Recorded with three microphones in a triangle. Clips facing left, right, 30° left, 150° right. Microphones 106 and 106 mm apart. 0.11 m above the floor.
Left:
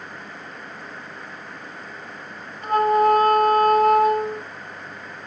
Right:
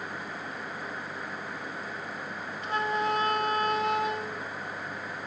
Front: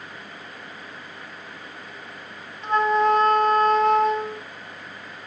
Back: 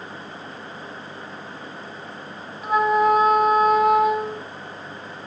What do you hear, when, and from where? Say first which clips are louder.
2.6 s a flute: left 12 dB, back 1 dB; 125° left